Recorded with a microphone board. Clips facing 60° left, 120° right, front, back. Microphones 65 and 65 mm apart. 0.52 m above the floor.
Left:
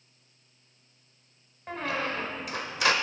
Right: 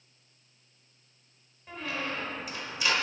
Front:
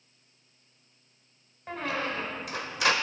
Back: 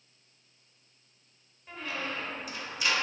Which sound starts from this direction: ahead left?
A squeak, at 1.7 s.